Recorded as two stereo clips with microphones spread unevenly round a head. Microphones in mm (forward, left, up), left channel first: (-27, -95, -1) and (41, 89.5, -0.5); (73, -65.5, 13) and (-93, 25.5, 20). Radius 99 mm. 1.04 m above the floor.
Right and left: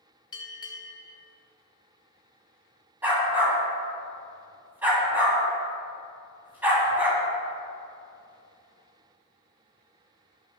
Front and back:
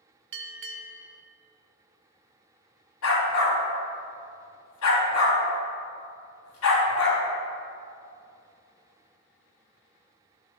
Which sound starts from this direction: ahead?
A dog barking, at 3.0 s.